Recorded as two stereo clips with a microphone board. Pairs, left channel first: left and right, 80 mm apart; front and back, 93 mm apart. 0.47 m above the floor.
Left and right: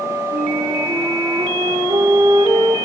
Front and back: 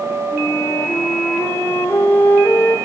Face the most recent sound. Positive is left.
turn(degrees=-70)